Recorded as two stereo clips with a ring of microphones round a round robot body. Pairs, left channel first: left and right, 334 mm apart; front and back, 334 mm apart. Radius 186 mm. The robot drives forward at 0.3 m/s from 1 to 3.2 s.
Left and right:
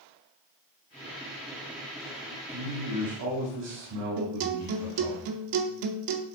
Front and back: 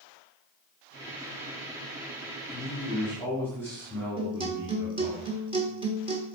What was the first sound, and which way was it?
A man speaking, 75° right.